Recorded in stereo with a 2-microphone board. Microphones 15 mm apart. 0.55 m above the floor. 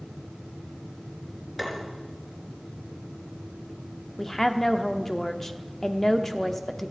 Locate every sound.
1.6 s tapping: centre (ahead or behind), 4 m
4.2 s a woman speaking: 25° left (ahead or behind), 0.9 m